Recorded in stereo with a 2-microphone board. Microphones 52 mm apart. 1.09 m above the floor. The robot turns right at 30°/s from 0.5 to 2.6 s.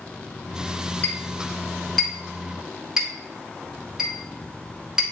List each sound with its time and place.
1.0 s a clink: 35° left (ahead or behind), 3 m; by 5.0 s 15° right (ahead or behind), 3 m